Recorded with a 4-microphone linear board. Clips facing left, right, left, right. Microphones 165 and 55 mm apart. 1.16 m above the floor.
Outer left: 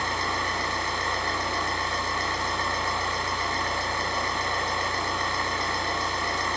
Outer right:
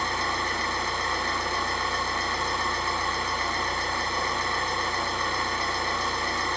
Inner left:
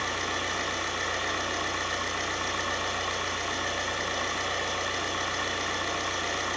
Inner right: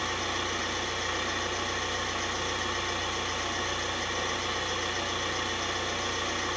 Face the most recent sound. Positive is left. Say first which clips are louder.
# even, inner left 1 dB
turn(degrees=85)